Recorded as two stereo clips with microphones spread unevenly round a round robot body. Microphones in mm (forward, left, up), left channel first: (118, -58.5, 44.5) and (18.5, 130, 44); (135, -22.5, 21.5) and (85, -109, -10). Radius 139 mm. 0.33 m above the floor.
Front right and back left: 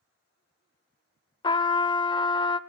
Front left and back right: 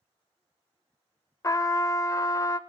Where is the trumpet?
5° right, 0.5 m.